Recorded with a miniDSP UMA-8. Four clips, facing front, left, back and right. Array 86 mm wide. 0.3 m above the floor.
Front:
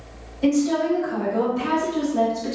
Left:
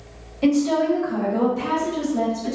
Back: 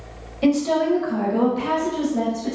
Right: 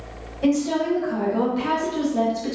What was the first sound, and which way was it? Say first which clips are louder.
A woman speaking: left 2 dB, back 1 dB; 150° left.